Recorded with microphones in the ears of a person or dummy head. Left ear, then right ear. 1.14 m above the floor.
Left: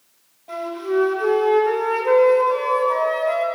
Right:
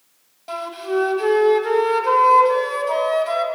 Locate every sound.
0.5 s a flute: 65° right (ahead or behind), 2.5 m